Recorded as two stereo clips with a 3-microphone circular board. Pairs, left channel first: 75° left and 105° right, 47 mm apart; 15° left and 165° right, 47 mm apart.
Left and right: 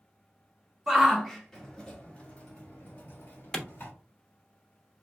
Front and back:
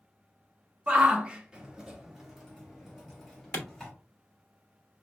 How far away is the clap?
About 0.8 m.